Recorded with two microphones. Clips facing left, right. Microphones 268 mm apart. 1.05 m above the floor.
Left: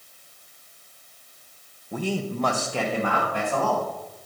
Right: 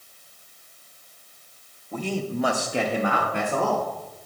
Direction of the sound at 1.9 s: 15° left (ahead or behind).